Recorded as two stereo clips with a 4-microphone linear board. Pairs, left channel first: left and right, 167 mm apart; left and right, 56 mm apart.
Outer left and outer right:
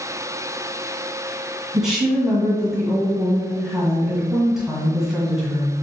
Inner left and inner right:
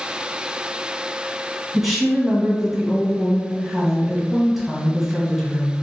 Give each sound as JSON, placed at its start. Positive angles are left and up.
{"t": 1.7, "sound": "a woman speaking", "side_deg": 0, "distance_m": 1.3}